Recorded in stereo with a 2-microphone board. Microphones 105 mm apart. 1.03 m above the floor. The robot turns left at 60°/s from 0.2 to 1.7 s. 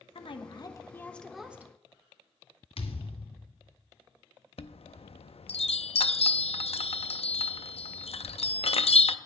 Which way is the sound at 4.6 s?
70° left (ahead or behind).